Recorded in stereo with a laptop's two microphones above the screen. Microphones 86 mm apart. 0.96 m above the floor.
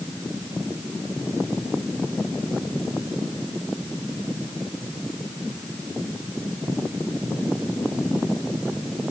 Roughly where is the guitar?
I don't hear a guitar.